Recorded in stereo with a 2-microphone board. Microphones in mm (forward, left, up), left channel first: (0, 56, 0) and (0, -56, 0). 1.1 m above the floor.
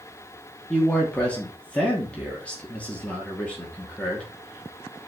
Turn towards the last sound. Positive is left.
turn(degrees=10)  # may be behind; listen again after turning